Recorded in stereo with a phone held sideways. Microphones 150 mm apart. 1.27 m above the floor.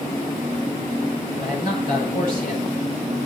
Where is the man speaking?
70° left (ahead or behind), 7 m.